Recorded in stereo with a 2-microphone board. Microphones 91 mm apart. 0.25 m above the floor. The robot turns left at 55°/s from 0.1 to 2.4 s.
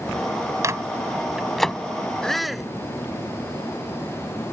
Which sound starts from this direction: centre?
A shout, at 2.2 s.